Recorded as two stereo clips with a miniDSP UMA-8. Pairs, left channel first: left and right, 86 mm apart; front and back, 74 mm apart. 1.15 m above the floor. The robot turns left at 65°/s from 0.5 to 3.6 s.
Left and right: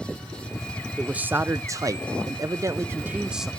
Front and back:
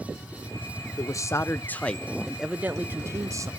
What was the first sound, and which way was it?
A man speaking, 10° right.